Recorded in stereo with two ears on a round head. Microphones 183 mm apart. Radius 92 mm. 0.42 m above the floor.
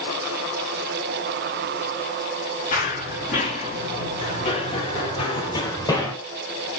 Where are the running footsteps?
40° left (ahead or behind), 6.5 m; by 6.2 s 15° left (ahead or behind), 4 m.